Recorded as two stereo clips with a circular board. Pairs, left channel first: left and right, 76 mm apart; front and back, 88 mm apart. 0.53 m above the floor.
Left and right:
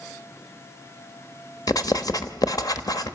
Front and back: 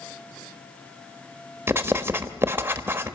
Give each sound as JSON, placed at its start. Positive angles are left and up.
{"t": 1.7, "sound": "writing", "azimuth_deg": 120, "distance_m": 1.2}